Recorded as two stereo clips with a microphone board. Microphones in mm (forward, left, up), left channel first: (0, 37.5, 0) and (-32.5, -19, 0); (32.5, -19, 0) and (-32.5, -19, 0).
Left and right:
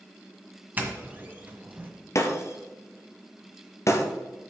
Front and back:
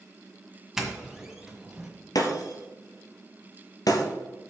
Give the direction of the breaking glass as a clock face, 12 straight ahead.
11 o'clock.